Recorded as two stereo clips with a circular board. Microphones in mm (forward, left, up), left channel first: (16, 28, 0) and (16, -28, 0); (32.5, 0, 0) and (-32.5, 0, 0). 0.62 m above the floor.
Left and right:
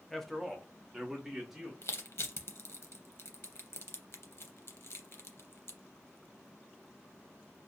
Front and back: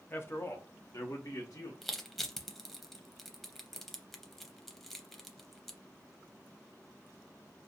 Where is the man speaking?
10° left, 0.6 m; by 1.7 s 5° right, 1.3 m.